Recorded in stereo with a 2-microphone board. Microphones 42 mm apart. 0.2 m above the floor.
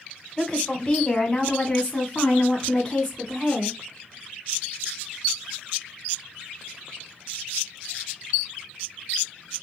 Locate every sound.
0.4 s a woman speaking: 20° left (ahead or behind), 1.1 m; by 3.8 s 25° left (ahead or behind), 1.9 m